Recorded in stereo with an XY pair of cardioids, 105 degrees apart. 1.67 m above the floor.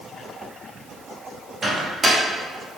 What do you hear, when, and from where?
1.6 s a microwave: 40° right, 0.8 m